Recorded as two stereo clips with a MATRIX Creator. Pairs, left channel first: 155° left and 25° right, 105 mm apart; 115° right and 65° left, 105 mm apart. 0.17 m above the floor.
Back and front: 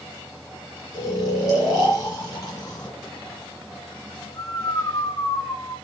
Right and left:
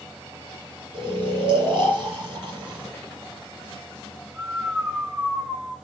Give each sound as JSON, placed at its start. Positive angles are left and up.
{"t": 0.9, "sound": "snoring", "azimuth_deg": 130, "distance_m": 1.7}